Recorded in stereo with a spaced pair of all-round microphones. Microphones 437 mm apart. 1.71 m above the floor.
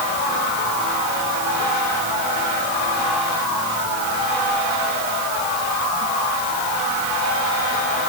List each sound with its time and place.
Only background noise.